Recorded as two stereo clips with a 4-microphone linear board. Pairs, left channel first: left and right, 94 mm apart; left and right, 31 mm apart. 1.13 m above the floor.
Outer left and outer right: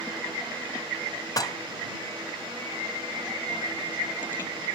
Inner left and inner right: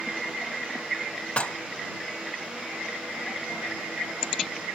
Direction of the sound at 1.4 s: 40° left (ahead or behind).